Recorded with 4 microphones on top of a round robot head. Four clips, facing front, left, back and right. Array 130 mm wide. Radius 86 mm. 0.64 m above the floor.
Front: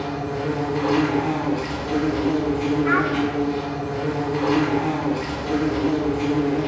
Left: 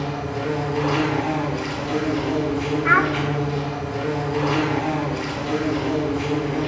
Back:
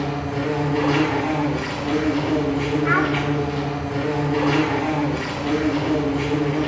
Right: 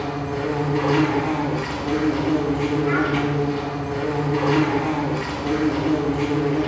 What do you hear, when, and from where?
0.0 s an insect: 145° right, 2 m
2.9 s a child speaking: 95° left, 0.7 m